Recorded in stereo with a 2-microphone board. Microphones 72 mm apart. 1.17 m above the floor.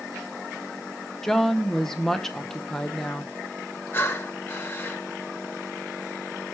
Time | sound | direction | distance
1.2 | a woman speaking | 5° left (ahead or behind) | 0.7 m
3.9 | breathing | 30° left (ahead or behind) | 1.0 m